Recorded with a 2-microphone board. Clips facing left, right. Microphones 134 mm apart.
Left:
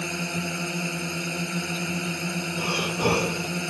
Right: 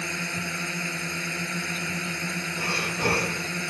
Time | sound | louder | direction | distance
0.0 | a drone | left 3 dB | 15° left (ahead or behind) | ?
2.6 | breathing | left 3 dB | 15° left (ahead or behind) | ?